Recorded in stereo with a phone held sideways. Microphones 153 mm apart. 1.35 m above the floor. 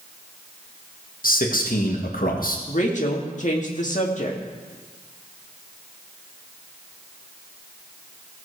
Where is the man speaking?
65° left (ahead or behind), 1.7 m.